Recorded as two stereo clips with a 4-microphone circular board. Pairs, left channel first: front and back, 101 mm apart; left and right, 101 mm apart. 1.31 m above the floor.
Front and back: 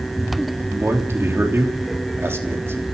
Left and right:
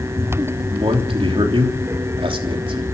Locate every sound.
0.6 s a man speaking: 115° right, 3 m